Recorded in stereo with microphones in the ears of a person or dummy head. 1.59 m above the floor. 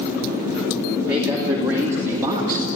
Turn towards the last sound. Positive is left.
turn(degrees=-25)  # may be behind; listen again after turning